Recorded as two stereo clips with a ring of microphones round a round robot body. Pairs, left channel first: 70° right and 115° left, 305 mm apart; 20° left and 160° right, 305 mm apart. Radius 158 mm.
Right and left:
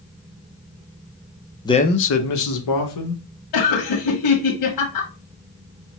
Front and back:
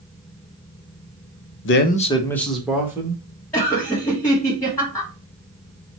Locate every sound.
1.6 s a man speaking: 5° left, 0.6 m; by 3.2 s 80° right, 1.4 m
3.5 s laughter: 60° right, 1.3 m